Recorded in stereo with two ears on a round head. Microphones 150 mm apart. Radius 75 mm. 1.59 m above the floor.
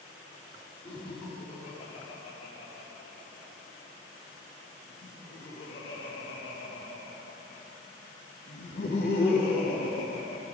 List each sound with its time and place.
0.8 s laughter: 35° left (ahead or behind), 5.5 m; by 10.4 s 45° left (ahead or behind), 4 m